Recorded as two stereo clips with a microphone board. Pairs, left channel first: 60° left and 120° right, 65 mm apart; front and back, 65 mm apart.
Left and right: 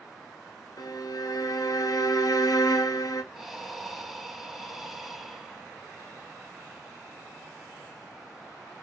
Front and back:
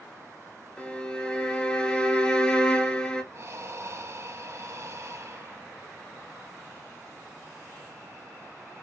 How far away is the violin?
About 0.6 m.